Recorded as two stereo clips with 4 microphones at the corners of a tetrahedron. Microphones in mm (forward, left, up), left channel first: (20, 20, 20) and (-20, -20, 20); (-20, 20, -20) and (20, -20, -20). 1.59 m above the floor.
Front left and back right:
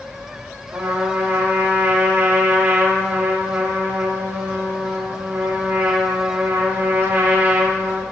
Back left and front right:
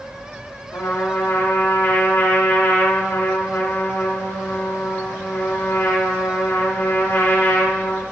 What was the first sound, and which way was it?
A trumpet, 175° left.